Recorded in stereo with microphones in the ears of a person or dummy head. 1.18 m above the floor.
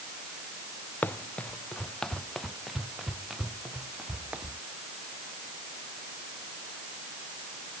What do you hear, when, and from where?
1.0 s running footsteps: 10° left (ahead or behind); by 4.6 s 5° right (ahead or behind)